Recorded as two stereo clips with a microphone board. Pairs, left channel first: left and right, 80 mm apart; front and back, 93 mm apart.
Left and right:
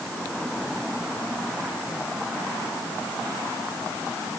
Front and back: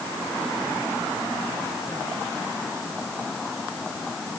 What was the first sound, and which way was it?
Only background noise.